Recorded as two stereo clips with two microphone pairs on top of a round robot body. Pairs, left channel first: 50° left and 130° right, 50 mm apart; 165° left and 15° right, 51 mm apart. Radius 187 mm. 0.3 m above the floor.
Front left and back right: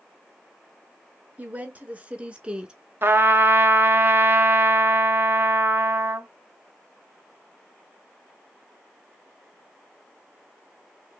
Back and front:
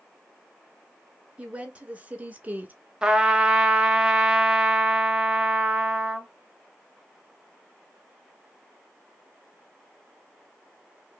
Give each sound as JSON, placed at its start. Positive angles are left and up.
{"t": 1.4, "sound": "a woman speaking", "azimuth_deg": -85, "distance_m": 3.0}
{"t": 3.0, "sound": "a trumpet", "azimuth_deg": -90, "distance_m": 0.8}